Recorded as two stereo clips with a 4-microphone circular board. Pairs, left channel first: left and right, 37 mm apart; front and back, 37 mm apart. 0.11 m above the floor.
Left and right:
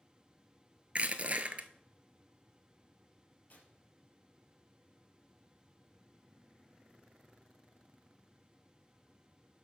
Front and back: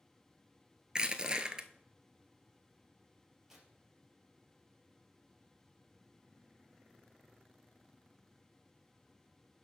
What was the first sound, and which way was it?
Crushing, 120° right.